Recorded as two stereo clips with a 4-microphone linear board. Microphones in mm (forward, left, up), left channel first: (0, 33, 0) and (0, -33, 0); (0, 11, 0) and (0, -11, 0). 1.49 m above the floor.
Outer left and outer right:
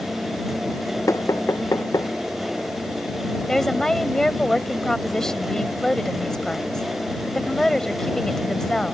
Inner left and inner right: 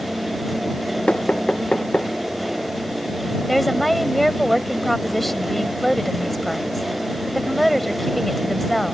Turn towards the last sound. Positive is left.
turn(degrees=5)  # may be behind; listen again after turning